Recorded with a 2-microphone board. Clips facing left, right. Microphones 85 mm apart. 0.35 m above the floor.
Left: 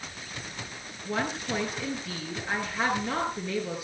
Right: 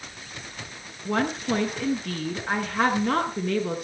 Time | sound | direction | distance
1.1 | a woman speaking | 65° right (ahead or behind) | 5 m